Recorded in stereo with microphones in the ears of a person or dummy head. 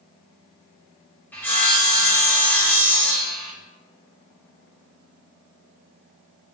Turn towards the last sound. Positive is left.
turn(degrees=15)  # may be behind; listen again after turning